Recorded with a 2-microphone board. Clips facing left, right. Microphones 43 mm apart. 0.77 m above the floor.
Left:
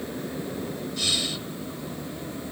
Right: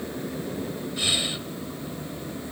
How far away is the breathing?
About 1.0 m.